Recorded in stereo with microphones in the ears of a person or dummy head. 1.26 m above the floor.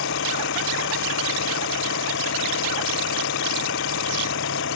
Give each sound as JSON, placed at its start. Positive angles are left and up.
{"t": 0.0, "sound": "an engine running", "side_deg": 60}